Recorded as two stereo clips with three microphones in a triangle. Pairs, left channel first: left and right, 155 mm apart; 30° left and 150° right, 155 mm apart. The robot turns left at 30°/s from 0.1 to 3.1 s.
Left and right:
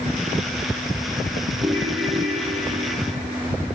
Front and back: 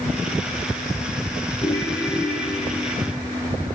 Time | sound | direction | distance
1.6 | a ringtone | 35° right | 2.0 m